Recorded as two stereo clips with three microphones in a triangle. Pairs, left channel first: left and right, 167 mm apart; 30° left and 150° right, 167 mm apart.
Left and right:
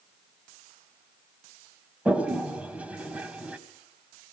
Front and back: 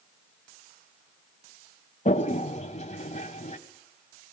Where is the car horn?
I don't hear a car horn.